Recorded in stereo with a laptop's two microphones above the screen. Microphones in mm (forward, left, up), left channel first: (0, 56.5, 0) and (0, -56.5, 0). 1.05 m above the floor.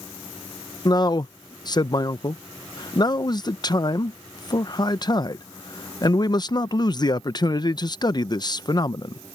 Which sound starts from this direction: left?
A man speaking, at 0.8 s.